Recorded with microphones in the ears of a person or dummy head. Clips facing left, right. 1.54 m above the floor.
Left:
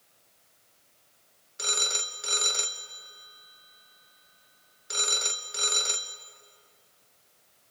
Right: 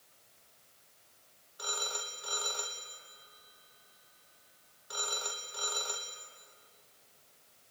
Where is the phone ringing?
35° left (ahead or behind), 1.1 m.